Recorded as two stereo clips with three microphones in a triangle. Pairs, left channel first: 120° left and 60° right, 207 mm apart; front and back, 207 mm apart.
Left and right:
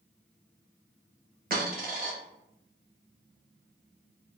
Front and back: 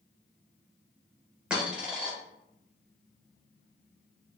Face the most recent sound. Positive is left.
turn(degrees=-95)